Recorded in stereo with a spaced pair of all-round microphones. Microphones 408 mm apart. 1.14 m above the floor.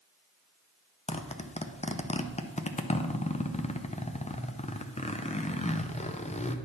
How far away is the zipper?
About 0.5 m.